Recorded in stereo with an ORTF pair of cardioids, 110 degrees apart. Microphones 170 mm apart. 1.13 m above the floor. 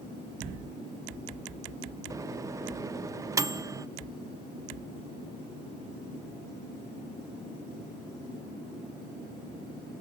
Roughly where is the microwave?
Ahead.